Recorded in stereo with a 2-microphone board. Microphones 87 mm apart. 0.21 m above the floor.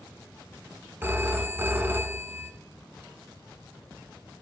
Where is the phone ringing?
25° right (ahead or behind), 1.1 m.